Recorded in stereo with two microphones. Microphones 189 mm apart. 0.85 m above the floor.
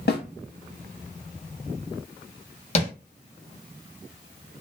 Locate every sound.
0.1 s a snare drum: 65° left (ahead or behind), 0.8 m
2.8 s tapping: 35° left (ahead or behind), 0.9 m